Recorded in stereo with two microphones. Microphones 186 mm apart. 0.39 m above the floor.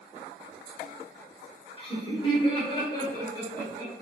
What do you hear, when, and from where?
1.8 s laughter: 30° left (ahead or behind), 1.5 m; by 3.9 s 20° left (ahead or behind), 1.9 m